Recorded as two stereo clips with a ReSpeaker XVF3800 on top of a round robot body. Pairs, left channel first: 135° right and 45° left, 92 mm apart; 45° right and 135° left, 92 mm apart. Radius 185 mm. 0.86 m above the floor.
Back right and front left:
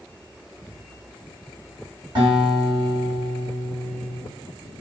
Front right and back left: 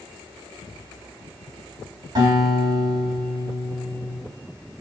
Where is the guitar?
90° left, 1.9 m.